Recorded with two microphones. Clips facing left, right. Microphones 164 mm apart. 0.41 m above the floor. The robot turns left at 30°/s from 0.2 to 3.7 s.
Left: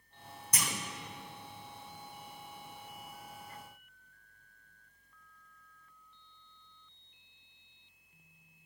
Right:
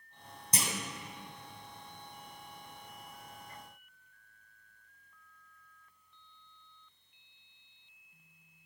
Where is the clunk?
30° right (ahead or behind), 0.6 m; by 0.7 s 25° right (ahead or behind), 0.6 m.